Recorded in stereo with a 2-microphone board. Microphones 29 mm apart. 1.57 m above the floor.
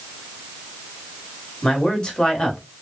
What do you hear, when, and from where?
1.6 s a man speaking: 35° left (ahead or behind), 1.0 m